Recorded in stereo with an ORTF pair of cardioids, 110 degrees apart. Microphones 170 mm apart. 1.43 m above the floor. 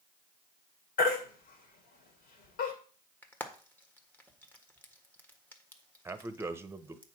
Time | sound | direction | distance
1.0 | a baby crying | 65° left | 2.5 m
3.2 | frying | 10° left | 1.5 m
6.0 | a man speaking | 15° right | 1.1 m